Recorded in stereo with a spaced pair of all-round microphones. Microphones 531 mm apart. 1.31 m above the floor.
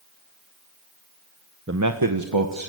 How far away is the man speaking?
About 1.1 m.